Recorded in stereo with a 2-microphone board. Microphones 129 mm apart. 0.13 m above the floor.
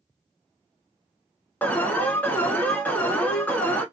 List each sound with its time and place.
1.6 s an alarm: 15° left (ahead or behind), 0.8 m